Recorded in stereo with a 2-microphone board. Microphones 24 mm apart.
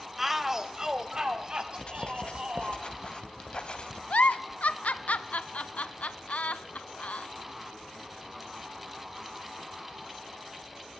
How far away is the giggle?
About 0.7 m.